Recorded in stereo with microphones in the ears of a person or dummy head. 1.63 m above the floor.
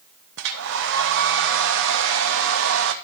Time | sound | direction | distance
0.4 | a hair dryer | 70° right (ahead or behind) | 1.1 m